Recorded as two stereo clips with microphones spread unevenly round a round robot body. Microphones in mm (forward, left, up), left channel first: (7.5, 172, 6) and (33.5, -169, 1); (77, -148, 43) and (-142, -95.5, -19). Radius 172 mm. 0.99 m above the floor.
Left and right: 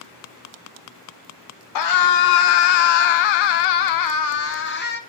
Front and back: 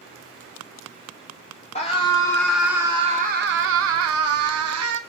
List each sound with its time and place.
1.8 s a scream: 60° left, 1.7 m; by 5.0 s 160° left, 1.7 m